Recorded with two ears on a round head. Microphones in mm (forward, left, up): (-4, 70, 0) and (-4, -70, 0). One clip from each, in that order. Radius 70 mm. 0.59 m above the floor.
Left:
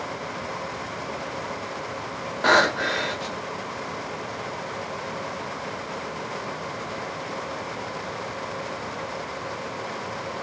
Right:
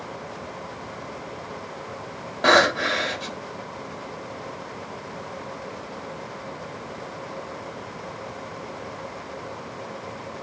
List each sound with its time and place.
2.4 s breathing: 5° right (ahead or behind), 0.8 m